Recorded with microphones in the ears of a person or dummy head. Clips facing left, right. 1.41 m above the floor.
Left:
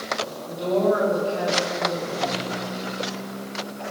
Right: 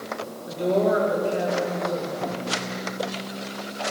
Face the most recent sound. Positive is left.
turn(degrees=-35)  # may be behind; listen again after turning